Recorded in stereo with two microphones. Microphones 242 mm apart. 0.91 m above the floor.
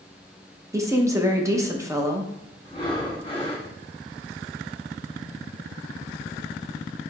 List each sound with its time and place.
0.7 s a woman speaking: 10° right (ahead or behind), 0.7 m
2.6 s breathing: 20° left (ahead or behind), 1.2 m